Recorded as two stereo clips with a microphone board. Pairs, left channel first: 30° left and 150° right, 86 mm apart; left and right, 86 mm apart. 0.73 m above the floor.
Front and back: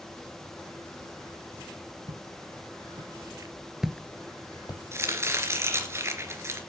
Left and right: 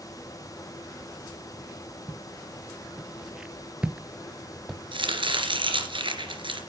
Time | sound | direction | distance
2.1 | footsteps | 175° right | 2.5 m
4.9 | chopping | 95° right | 2.5 m